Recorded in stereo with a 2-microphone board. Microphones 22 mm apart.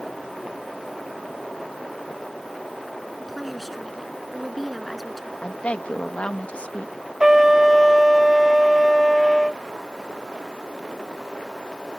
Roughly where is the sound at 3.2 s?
Centre.